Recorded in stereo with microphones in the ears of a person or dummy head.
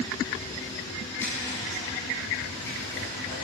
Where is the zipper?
15° left (ahead or behind), 8 m.